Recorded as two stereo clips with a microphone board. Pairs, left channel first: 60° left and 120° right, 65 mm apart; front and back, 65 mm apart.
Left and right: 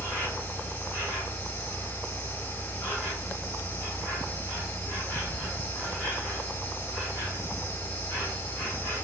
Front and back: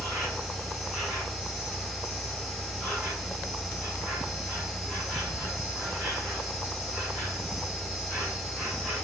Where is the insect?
100° left, 1.6 m.